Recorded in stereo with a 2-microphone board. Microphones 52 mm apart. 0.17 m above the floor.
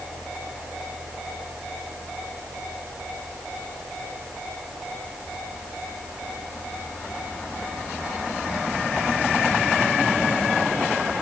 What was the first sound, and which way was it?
Only background noise.